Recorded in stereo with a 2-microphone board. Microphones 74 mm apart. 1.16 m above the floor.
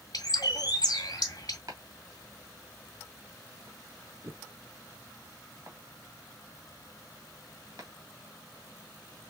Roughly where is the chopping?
Right.